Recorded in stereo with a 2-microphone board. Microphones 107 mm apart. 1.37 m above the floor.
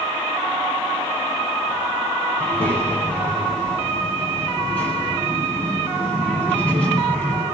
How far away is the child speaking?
About 9 m.